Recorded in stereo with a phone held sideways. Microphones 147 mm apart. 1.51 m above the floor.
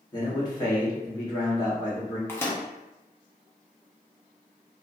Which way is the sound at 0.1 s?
25° left (ahead or behind).